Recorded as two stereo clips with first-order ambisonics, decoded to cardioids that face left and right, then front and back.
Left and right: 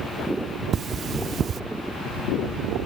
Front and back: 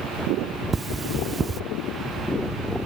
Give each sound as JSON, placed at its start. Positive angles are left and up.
{"t": 0.7, "sound": "cutlery clinking", "azimuth_deg": -125}